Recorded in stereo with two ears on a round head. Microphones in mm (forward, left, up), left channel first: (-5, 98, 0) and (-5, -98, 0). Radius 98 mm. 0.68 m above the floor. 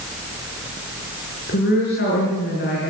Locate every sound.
1.5 s a woman speaking: 50° left (ahead or behind), 9.5 m